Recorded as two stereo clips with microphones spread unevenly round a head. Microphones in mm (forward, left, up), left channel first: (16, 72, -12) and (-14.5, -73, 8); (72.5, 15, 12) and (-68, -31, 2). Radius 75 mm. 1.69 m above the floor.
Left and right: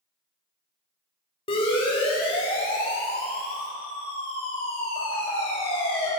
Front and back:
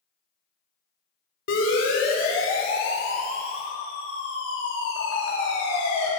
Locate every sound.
1.5 s a siren: 20° left, 6 m; by 6.1 s 25° left, 8 m